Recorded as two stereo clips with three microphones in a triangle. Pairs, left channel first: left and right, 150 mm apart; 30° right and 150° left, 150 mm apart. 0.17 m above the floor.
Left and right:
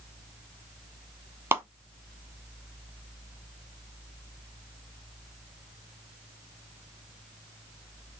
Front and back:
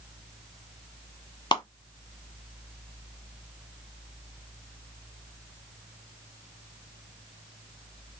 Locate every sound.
1.5 s a clap: 35° right, 1.3 m